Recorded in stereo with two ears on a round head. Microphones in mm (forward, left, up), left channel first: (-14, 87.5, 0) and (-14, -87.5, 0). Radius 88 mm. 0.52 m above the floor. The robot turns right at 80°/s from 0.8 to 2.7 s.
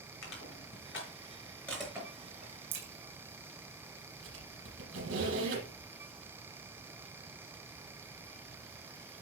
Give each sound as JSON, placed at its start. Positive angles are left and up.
{"t": 0.2, "sound": "crushing", "side_deg": 80, "distance_m": 4.0}
{"t": 2.7, "sound": "a crack", "side_deg": -70, "distance_m": 3.5}
{"t": 4.2, "sound": "a squeak", "side_deg": -70, "distance_m": 6.0}